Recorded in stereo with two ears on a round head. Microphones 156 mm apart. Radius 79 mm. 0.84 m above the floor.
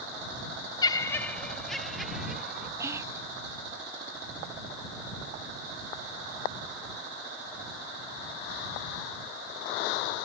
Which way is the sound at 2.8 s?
15° right (ahead or behind).